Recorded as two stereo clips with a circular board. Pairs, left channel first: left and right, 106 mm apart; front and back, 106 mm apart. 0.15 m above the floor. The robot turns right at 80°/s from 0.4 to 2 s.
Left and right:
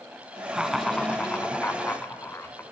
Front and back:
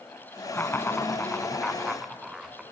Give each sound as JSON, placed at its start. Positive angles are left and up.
{"t": 0.5, "sound": "laughter", "azimuth_deg": -20, "distance_m": 1.4}